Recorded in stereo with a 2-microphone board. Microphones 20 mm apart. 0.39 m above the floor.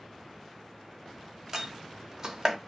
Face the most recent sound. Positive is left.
turn(degrees=-30)  # may be behind; listen again after turning